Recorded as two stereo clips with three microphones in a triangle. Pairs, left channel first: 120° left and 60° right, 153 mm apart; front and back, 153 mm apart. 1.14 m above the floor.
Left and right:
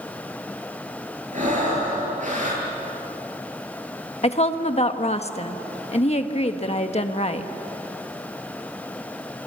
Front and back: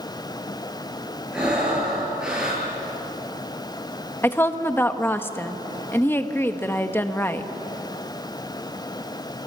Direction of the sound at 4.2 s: 75° left.